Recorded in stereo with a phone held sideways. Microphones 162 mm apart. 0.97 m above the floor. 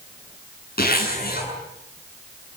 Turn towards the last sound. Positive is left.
turn(degrees=70)  # may be behind; listen again after turning